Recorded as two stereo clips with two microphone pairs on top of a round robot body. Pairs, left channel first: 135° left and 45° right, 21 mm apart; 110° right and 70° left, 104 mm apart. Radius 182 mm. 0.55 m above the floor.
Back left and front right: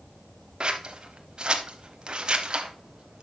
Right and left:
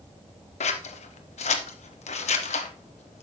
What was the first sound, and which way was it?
Scissors, 95° right.